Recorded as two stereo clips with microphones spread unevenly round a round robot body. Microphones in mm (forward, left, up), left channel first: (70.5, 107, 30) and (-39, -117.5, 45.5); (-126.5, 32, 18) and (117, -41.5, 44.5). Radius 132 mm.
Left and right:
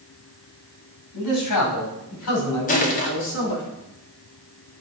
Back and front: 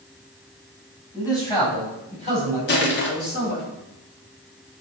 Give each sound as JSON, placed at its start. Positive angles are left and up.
{"t": 1.1, "sound": "a man speaking", "azimuth_deg": 85, "distance_m": 5.0}
{"t": 2.7, "sound": "crushing", "azimuth_deg": 120, "distance_m": 1.6}